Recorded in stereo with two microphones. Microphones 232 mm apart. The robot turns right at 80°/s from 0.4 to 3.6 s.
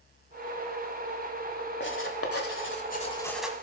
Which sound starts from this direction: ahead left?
Writing, at 1.8 s.